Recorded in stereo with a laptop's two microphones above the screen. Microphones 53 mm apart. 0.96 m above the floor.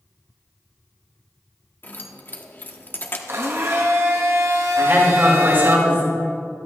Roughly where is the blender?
Right.